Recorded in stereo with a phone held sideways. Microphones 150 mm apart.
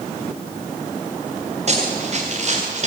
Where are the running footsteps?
45° right (ahead or behind), 8.5 m; by 2.9 s 50° right (ahead or behind), 7 m.